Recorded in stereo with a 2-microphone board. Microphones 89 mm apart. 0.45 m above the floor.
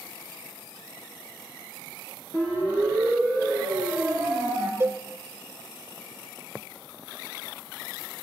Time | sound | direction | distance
2.3 | a siren | 15° left (ahead or behind) | 9 m
4.8 | a cowbell | 25° right (ahead or behind) | 1.2 m